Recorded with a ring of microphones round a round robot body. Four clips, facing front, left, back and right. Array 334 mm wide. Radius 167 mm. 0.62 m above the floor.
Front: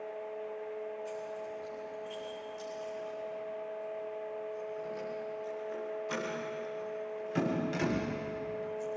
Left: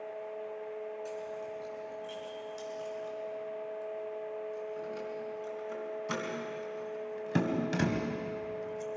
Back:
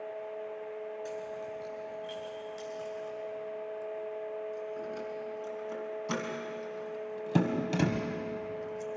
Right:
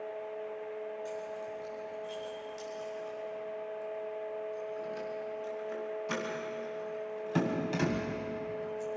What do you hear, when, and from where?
1.1 s keys jangling: 175° left, 7.5 m; by 8.9 s 140° left, 2.5 m